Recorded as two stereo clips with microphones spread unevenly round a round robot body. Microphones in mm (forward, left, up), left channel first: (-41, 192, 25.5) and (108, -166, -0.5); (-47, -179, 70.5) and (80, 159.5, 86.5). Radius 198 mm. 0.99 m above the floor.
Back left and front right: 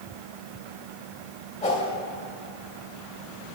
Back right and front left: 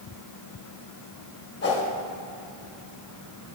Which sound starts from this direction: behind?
A whoosh, at 1.6 s.